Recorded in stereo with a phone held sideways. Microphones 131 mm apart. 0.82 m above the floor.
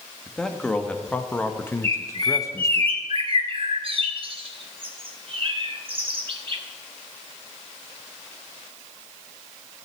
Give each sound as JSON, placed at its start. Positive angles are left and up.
{"t": 0.3, "sound": "a man speaking", "side_deg": 5, "distance_m": 1.5}
{"t": 1.8, "sound": "a bird", "side_deg": -40, "distance_m": 1.4}